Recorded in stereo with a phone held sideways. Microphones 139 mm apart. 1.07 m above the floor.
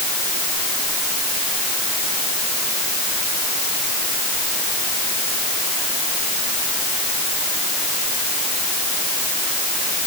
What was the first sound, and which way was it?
Only background noise.